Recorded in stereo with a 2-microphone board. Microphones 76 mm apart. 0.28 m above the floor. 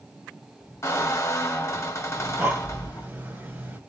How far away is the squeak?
About 1.6 m.